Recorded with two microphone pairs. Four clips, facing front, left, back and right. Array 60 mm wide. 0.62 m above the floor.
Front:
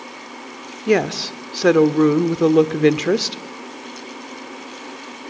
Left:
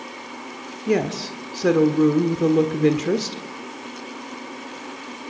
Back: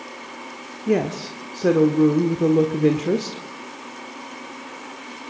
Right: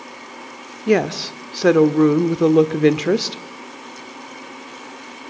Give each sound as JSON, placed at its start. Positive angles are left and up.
{"t": 0.9, "sound": "a woman speaking", "azimuth_deg": -30, "distance_m": 1.3}